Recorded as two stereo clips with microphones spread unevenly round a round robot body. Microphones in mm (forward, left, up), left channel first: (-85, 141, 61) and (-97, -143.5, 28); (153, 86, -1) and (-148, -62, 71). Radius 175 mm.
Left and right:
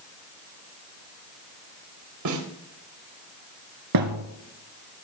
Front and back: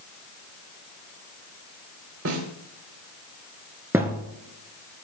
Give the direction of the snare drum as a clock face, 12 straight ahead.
3 o'clock.